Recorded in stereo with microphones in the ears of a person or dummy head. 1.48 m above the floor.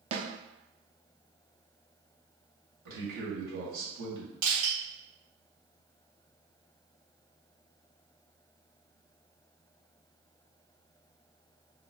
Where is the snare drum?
40° right (ahead or behind), 0.8 m.